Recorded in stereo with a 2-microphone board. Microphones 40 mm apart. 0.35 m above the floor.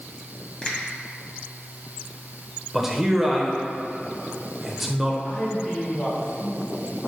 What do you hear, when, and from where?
0.6 s a finger snap: 25° left (ahead or behind), 1.8 m
2.7 s a man speaking: 5° right (ahead or behind), 1.0 m
5.2 s a man speaking: 25° left (ahead or behind), 2.5 m